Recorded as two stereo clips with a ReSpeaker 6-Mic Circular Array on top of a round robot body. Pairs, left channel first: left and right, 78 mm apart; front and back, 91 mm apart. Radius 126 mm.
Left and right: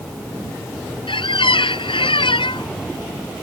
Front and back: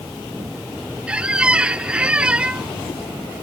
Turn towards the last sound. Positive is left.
turn(degrees=100)